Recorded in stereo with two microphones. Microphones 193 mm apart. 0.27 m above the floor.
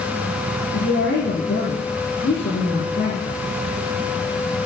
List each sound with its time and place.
0.7 s a woman speaking: 75° left (ahead or behind), 7 m